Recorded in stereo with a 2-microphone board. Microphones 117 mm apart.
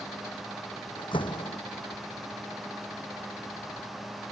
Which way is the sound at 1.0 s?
45° left (ahead or behind).